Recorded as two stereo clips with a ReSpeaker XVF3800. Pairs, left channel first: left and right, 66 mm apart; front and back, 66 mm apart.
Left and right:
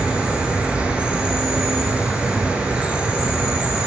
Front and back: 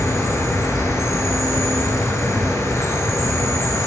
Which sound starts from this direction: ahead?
An insect, at 0.0 s.